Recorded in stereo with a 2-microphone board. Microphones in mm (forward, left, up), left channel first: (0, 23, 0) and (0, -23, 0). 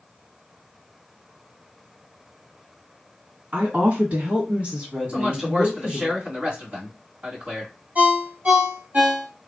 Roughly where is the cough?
I don't hear a cough.